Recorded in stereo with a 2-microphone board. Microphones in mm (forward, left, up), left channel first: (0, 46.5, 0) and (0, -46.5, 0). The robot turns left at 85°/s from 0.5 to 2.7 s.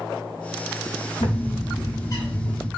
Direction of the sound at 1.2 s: 115° left.